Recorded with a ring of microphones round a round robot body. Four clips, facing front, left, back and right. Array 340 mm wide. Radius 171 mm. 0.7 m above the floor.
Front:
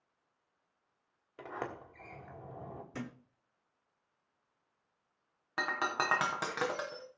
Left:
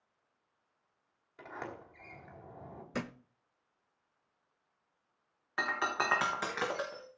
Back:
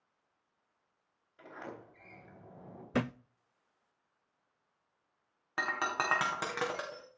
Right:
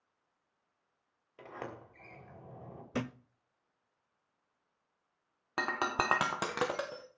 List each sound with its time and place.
1.4 s a sliding door: 10° right, 3.5 m
2.9 s a thud: 170° right, 0.6 m
5.6 s breaking glass: 90° right, 3.5 m